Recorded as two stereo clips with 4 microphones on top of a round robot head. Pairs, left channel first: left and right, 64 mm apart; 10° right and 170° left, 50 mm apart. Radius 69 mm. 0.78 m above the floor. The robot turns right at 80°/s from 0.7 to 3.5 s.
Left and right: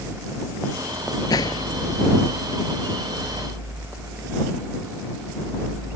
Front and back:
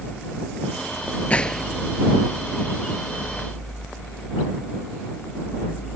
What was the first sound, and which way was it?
A gunshot, 55° left.